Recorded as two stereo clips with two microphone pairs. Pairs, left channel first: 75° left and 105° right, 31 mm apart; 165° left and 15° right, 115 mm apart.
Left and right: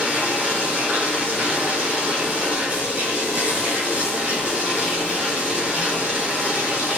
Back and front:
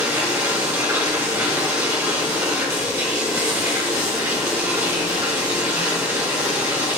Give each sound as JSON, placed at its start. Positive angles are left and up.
{"t": 0.0, "sound": "running water", "azimuth_deg": -85, "distance_m": 3.5}